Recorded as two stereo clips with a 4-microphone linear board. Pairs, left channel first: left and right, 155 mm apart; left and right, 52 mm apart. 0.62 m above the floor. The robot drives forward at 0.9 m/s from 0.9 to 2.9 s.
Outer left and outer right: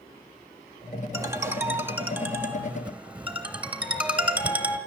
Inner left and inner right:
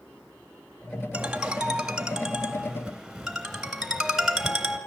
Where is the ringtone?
20° right (ahead or behind), 1.0 m; by 4.8 s 10° right (ahead or behind), 2.5 m.